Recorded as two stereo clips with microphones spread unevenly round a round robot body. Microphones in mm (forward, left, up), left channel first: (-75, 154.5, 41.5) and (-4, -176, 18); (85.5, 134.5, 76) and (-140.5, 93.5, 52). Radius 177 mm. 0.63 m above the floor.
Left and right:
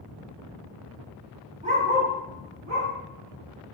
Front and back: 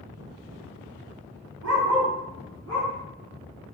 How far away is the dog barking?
About 0.9 m.